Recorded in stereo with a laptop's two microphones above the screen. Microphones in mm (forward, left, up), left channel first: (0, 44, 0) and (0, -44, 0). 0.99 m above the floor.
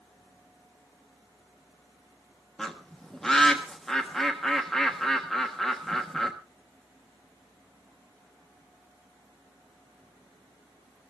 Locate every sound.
2.6 s a bird: 5° left (ahead or behind), 1.2 m